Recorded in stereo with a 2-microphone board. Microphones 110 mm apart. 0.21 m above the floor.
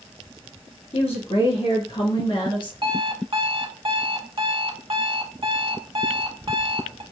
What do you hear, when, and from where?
0.9 s a woman speaking: 65° left (ahead or behind), 2.5 m; by 2.7 s 45° left (ahead or behind), 2 m
2.8 s an alarm clock: 50° right (ahead or behind), 0.8 m